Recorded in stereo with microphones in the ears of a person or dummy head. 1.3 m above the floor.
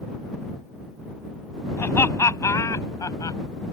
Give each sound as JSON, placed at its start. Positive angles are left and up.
{"t": 1.8, "sound": "laughter", "side_deg": 15}